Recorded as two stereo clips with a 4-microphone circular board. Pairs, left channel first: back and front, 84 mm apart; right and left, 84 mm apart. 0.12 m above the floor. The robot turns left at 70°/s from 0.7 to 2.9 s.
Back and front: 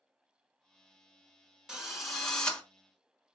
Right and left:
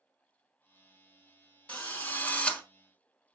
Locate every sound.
1.7 s a drill: 65° right, 1.0 m; by 2.6 s 130° right, 1.0 m